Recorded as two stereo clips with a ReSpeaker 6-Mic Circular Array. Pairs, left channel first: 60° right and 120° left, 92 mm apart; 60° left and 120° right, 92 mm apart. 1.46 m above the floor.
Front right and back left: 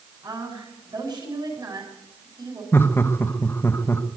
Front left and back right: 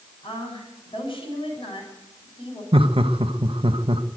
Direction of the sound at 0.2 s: 80° left.